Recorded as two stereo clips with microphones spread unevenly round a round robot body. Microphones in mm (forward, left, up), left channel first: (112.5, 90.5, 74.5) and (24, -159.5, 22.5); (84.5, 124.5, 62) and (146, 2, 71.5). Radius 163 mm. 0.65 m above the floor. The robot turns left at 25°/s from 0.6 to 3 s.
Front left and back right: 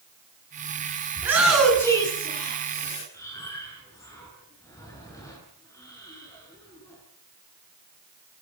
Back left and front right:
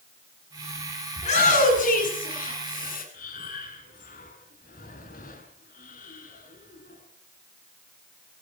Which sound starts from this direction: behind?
A shout, at 1.2 s.